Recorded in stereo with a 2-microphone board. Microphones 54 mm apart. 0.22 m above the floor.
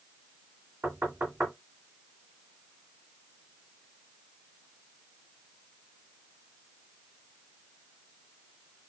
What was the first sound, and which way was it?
Knocking, 45° right (ahead or behind).